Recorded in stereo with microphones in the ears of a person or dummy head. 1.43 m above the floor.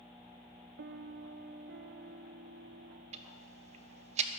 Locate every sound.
0.8 s a piano: 50° right (ahead or behind), 0.6 m
3.1 s ticking: 35° right (ahead or behind), 1.0 m